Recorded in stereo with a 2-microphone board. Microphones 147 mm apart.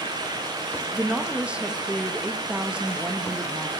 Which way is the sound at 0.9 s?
10° right (ahead or behind).